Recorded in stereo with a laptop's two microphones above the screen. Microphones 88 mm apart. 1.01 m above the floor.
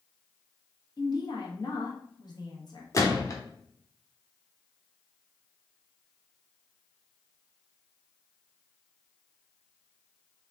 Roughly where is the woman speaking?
Left.